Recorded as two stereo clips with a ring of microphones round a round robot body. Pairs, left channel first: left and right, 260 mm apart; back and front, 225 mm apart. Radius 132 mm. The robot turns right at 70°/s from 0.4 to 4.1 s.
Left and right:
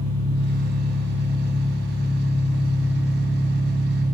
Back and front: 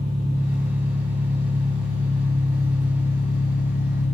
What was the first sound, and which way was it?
An engine running, 80° right.